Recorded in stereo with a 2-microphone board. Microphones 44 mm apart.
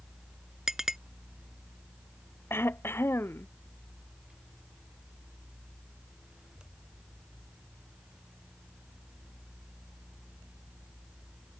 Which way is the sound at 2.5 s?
60° left (ahead or behind).